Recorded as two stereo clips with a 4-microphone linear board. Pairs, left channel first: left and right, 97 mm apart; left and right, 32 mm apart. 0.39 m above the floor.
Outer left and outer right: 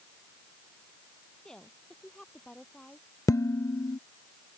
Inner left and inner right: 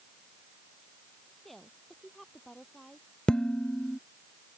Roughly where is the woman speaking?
Centre.